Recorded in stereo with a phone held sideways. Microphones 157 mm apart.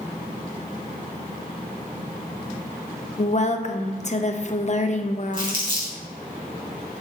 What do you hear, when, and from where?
3.2 s a woman speaking: 50° left (ahead or behind), 0.6 m
5.3 s crumpling: 30° right (ahead or behind), 3 m